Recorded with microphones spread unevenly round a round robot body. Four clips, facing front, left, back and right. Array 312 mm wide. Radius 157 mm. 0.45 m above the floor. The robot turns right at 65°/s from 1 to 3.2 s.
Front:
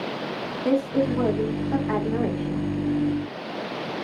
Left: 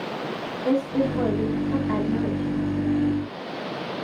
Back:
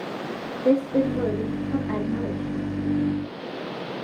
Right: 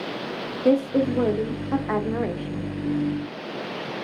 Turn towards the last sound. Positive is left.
turn(degrees=30)